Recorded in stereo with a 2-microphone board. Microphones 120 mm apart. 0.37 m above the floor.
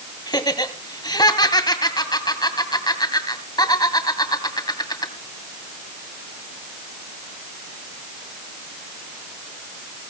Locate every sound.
0.3 s laughter: 35° left (ahead or behind), 2.5 m